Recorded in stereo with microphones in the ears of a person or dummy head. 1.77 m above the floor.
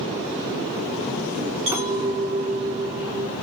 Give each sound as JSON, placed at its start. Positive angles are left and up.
{"t": 1.7, "sound": "a clink", "side_deg": -20, "distance_m": 1.4}